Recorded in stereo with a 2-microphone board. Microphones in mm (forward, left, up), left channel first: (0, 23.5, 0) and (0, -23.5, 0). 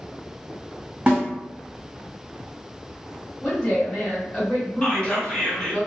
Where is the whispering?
20° left (ahead or behind), 1.8 m.